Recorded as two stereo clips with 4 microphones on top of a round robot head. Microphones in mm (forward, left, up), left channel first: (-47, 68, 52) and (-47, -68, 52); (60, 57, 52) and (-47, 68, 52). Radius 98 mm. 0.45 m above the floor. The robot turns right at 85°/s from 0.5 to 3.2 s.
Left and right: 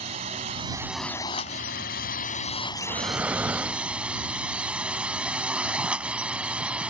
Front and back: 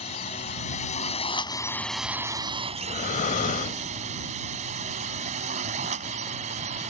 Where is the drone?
40° right; by 6.9 s 170° right.